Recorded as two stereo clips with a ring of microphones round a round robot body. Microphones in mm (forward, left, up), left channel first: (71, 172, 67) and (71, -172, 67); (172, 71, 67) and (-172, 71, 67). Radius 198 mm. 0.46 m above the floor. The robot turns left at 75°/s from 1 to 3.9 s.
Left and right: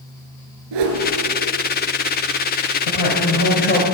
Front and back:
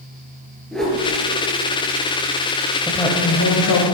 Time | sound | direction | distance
0.7 | a whoosh | 90° right | 2.5 m
2.9 | a woman speaking | 90° left | 2.5 m